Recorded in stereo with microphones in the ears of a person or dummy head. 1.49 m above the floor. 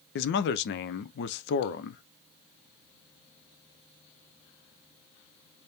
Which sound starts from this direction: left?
A man speaking, at 0.1 s.